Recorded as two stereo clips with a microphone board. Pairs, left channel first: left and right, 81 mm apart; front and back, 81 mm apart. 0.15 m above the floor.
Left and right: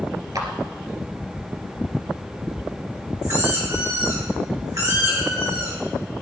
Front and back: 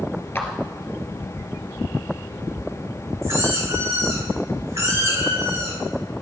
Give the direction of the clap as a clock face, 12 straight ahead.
2 o'clock.